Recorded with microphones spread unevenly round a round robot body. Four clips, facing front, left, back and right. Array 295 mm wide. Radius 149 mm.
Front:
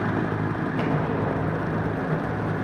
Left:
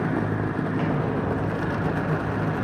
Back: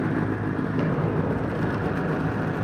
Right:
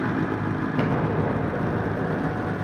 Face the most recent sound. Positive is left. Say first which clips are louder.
# right 4 dB, front 1 dB
turn(degrees=-110)